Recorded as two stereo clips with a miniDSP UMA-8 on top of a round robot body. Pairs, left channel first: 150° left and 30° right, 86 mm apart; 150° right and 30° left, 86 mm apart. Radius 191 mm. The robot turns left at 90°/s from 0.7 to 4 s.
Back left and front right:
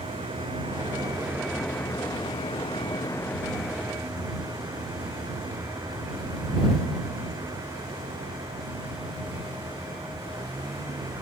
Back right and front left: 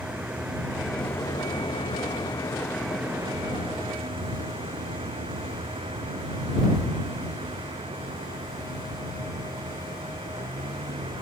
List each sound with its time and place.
0.0 s a vehicle: 45° right; by 11.2 s 20° left